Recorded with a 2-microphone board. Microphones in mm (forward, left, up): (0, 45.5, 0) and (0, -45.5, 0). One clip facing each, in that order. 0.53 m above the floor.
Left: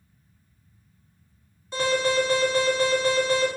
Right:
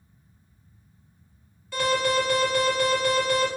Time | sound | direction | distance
1.7 | an alarm | 25° left (ahead or behind) | 1.4 m